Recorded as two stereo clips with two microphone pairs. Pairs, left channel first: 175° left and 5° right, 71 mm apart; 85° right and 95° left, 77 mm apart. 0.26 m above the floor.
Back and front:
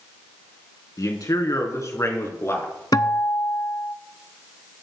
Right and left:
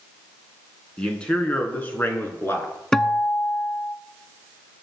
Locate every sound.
1.0 s a man speaking: 160° right, 3 m; by 2.7 s 135° right, 3.5 m
2.9 s a guitar: 165° right, 0.8 m